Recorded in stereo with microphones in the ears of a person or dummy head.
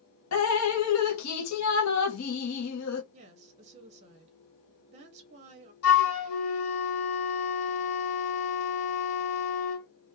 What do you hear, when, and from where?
0.3 s dripping: 85° left, 0.6 m
3.1 s a woman speaking: 30° right (ahead or behind), 0.6 m
5.8 s a flute: 75° left (ahead or behind), 1.0 m